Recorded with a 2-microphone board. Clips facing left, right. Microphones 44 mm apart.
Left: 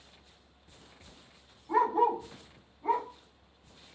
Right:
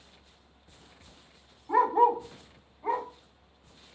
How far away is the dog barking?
About 1.4 m.